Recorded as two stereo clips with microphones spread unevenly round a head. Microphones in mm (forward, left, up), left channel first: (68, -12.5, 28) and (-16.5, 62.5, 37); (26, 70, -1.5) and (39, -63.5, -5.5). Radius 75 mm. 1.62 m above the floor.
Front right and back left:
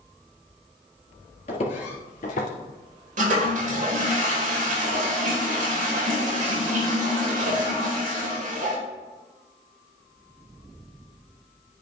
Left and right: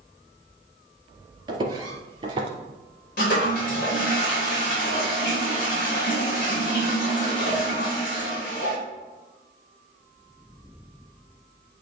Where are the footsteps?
45° right, 2.0 m; by 2.5 s 40° right, 2.5 m.